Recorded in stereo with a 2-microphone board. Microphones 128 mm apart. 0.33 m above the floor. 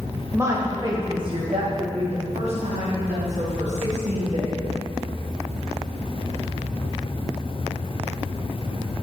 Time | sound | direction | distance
0.3 | a woman speaking | 20° right (ahead or behind) | 1.3 m